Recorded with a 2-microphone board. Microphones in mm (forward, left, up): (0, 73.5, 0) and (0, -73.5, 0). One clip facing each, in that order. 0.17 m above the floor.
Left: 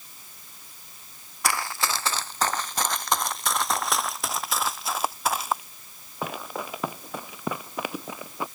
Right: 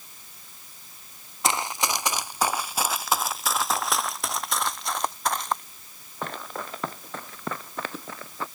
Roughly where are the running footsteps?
Right.